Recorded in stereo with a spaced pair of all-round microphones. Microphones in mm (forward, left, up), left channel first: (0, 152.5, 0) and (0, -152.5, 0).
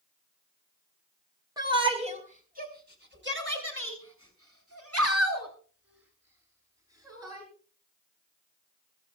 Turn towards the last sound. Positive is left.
turn(degrees=-70)  # may be behind; listen again after turning